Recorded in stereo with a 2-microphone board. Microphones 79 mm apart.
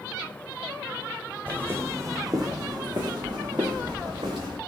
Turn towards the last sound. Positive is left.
turn(degrees=-75)  # may be behind; listen again after turning